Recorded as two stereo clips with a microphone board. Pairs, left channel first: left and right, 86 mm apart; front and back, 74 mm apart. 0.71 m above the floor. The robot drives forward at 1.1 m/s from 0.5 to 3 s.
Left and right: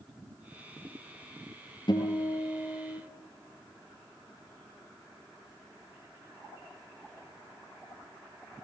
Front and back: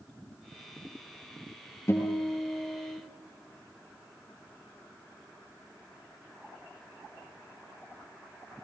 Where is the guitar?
55° left, 7.5 m; by 3.0 s 65° left, 7 m.